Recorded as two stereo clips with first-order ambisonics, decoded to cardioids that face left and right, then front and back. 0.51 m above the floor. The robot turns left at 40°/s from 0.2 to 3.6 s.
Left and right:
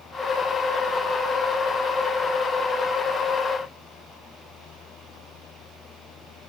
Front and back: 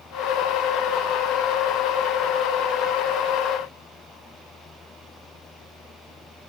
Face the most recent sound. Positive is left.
No sound to turn to.